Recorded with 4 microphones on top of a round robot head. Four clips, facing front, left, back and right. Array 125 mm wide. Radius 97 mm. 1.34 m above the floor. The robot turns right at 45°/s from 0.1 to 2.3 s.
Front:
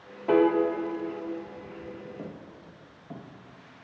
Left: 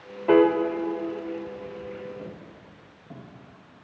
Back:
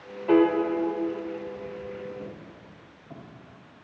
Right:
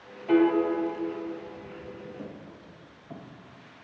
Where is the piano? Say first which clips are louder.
Left 4 dB, back 2 dB; 60° left, 0.9 m; by 0.6 s 75° left, 0.9 m.